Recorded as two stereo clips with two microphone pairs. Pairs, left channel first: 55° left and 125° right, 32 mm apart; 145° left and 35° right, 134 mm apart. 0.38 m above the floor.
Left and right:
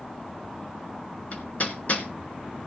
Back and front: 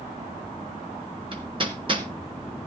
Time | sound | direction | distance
1.3 | hammering | 15° left | 2 m